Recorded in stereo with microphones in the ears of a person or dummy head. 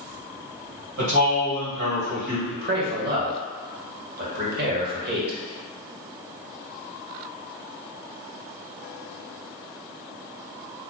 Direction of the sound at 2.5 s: 55° right (ahead or behind).